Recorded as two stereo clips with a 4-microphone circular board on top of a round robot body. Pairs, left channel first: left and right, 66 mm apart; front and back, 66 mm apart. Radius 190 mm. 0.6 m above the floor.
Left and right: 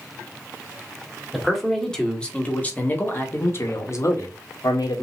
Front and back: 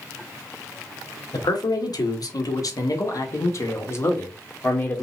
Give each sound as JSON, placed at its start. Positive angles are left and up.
{"t": 1.3, "sound": "a man speaking", "azimuth_deg": 0, "distance_m": 1.8}